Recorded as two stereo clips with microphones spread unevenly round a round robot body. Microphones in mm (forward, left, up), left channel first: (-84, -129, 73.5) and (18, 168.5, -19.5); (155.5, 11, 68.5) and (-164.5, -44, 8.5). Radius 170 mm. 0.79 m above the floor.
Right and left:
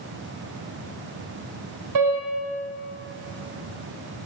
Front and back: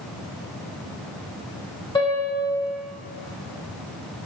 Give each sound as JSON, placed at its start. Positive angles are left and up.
{"t": 1.9, "sound": "a piano", "azimuth_deg": 90, "distance_m": 2.5}